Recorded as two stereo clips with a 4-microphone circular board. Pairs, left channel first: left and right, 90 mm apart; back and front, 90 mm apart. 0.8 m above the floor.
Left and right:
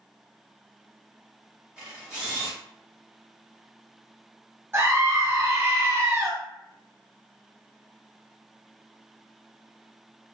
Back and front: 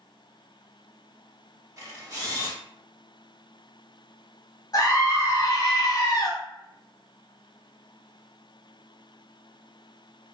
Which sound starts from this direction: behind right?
A scream, at 4.7 s.